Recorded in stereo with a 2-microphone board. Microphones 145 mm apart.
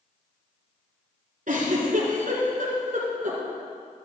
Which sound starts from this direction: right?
A giggle, at 1.5 s.